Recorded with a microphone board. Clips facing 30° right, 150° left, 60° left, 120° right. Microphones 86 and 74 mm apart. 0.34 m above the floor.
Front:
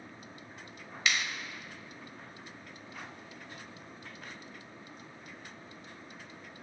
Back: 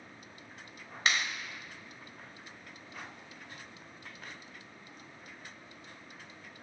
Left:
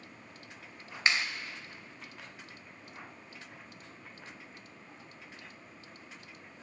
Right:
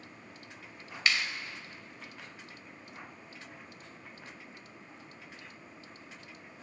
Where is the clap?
115° left, 1.1 m.